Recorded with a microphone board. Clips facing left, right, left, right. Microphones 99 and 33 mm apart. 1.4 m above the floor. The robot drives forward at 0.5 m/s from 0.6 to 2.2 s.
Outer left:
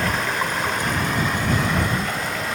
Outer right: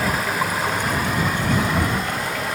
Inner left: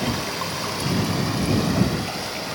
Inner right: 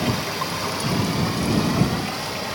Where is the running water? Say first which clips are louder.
Outer right 1 dB, inner right 1 dB; 5° right (ahead or behind), 1.3 m.